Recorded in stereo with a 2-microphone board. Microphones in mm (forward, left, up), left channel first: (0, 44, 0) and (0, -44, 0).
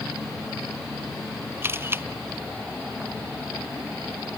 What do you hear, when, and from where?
1.6 s a camera shutter: 25° right (ahead or behind)